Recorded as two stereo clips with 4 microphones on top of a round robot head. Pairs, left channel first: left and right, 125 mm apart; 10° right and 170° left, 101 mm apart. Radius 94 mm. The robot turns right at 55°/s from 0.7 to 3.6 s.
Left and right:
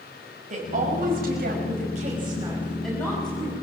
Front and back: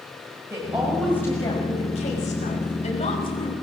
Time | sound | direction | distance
0.5 | a woman speaking | 115° right | 5.5 m